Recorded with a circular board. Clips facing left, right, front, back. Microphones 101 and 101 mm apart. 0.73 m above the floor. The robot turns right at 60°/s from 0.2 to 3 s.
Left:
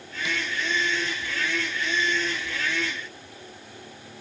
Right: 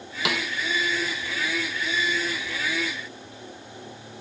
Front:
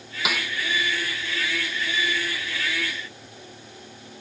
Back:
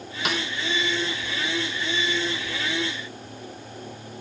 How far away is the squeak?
I don't hear a squeak.